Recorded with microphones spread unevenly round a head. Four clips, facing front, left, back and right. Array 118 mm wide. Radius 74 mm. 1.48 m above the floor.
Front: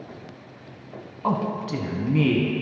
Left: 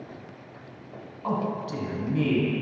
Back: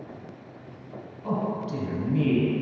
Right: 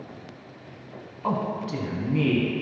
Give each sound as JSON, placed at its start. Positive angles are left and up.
{"t": 1.2, "sound": "a man speaking", "azimuth_deg": -20, "distance_m": 1.0}